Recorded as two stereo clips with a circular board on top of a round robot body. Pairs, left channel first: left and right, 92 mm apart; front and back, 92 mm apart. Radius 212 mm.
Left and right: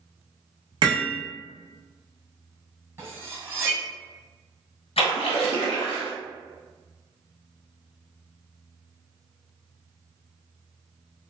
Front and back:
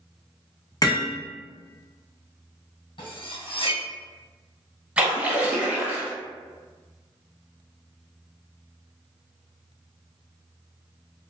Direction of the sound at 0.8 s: 50° right.